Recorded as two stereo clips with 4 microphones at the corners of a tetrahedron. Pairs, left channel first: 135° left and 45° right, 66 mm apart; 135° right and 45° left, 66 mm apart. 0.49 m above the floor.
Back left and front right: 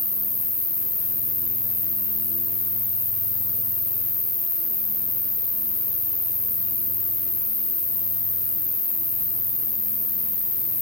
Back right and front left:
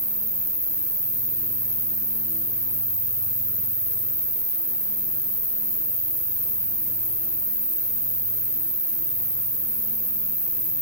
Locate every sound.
0.0 s an insect: 25° left, 1.3 m